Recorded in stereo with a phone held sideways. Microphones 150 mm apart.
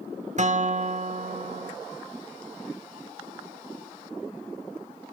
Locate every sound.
0.4 s a guitar: 50° right (ahead or behind), 0.8 m